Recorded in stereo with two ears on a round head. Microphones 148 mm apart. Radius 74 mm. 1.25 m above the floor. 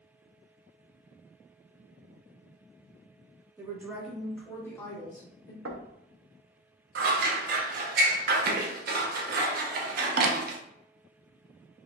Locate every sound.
3.6 s a woman speaking: 20° right (ahead or behind), 1.3 m; by 5.5 s 25° left (ahead or behind), 2.0 m
5.7 s knocking: 75° right (ahead or behind), 0.7 m
7.0 s scissors: 55° right (ahead or behind), 0.8 m